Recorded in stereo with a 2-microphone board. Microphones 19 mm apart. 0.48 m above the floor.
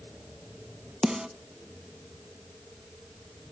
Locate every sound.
1.0 s a snare drum: 45° right (ahead or behind), 0.8 m